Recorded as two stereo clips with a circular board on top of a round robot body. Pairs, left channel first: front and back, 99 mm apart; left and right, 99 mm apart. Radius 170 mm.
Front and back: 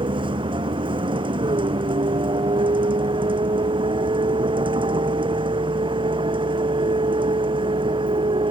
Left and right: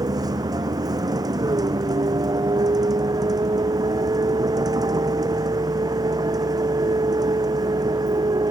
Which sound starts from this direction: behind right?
A vehicle, at 0.0 s.